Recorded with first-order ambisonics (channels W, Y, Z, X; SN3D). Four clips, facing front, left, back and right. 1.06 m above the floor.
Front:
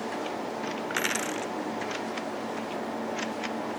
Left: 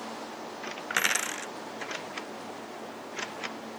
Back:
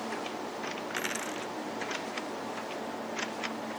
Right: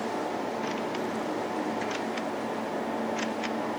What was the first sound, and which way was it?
A dropped coin, 70° left.